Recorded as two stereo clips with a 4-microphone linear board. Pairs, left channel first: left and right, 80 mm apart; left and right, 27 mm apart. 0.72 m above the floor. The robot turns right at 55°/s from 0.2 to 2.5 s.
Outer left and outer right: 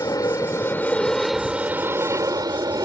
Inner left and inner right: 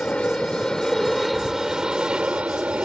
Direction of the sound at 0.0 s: 120° left.